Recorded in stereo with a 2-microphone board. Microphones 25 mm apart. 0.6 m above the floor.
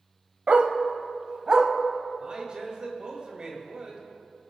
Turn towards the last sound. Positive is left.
turn(degrees=-35)  # may be behind; listen again after turning